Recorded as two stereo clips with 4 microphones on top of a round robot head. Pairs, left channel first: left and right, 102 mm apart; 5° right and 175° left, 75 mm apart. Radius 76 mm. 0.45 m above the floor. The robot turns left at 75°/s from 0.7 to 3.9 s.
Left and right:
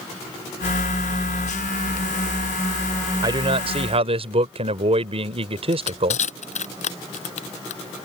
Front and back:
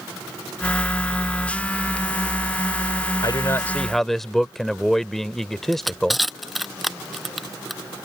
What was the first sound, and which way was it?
A man speaking, 40° right.